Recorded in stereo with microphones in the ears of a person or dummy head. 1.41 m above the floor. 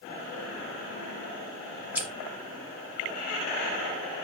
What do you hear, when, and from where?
1.9 s scissors: 5° right (ahead or behind), 1.0 m